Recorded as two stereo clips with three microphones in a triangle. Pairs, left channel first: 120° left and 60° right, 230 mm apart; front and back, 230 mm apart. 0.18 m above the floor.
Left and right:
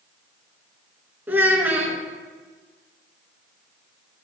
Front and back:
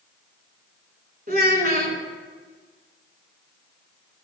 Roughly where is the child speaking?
Behind right.